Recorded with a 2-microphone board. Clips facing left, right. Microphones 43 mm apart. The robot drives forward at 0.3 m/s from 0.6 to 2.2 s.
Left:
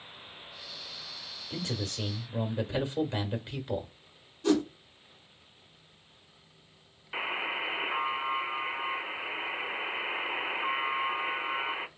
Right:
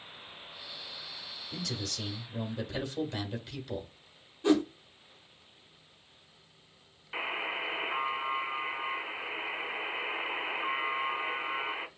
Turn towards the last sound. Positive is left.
turn(degrees=5)  # may be behind; listen again after turning